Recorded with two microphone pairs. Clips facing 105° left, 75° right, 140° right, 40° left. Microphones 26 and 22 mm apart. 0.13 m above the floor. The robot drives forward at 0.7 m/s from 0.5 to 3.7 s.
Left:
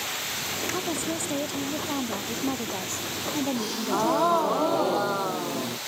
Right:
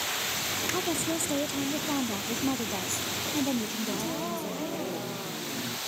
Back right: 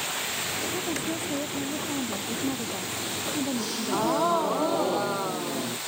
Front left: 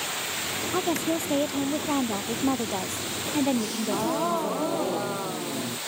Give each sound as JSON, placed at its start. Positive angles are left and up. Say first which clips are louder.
{"t": 0.7, "sound": "a woman speaking", "louder": "even, front left 4 dB", "azimuth_deg": 20}
{"t": 3.5, "sound": "a gasp", "louder": "left 5 dB, even", "azimuth_deg": 140}